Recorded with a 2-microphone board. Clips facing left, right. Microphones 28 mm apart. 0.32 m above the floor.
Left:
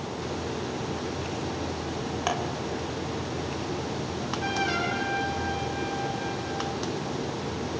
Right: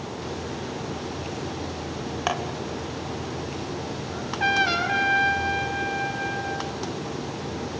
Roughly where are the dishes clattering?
Centre.